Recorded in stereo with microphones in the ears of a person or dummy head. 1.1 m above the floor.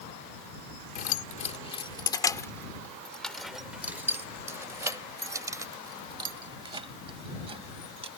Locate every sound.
0.9 s keys jangling: 40° left (ahead or behind); by 8.1 s 35° right (ahead or behind)